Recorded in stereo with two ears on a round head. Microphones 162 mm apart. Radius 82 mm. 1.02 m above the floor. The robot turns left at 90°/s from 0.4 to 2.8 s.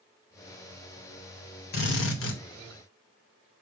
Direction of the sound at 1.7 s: 120° left.